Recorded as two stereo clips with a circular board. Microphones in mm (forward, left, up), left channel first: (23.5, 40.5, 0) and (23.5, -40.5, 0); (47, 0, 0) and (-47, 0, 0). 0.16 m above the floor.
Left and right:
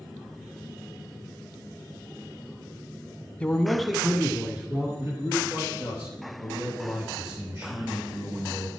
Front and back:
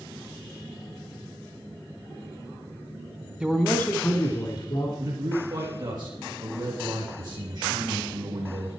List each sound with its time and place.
3.4 s a man speaking: 125° left, 1.1 m; by 4.9 s 20° right, 2 m
5.0 s a man speaking: 140° right, 3 m